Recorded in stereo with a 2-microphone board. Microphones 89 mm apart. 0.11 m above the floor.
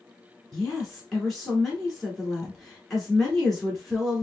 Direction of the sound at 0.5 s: 5° left (ahead or behind).